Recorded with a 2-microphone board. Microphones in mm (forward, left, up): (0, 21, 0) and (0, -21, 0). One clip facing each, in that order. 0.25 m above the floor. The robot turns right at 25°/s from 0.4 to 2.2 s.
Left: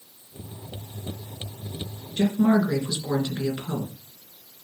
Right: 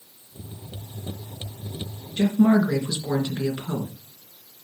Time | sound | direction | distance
2.2 | a woman speaking | 15° right (ahead or behind) | 3 m